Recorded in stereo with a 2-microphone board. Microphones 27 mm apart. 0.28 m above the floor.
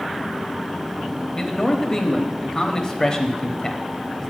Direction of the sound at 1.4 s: 20° left (ahead or behind).